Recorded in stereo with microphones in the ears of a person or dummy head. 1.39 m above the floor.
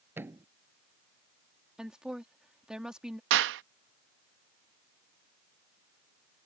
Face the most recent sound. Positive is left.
turn(degrees=-70)  # may be behind; listen again after turning